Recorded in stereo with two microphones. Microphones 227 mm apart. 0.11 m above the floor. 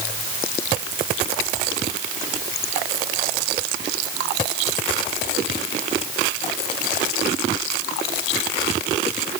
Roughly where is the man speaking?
I don't hear a man speaking.